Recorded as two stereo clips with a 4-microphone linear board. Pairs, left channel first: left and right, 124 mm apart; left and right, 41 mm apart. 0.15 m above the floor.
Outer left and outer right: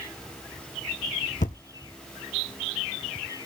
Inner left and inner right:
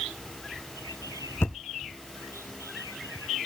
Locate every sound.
1.4 s a thud: 90° left, 0.8 m